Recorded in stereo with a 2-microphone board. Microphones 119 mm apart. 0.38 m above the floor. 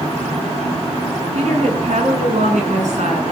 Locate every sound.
1.4 s a woman speaking: 65° right (ahead or behind), 5 m; by 3.3 s 70° right (ahead or behind), 5.5 m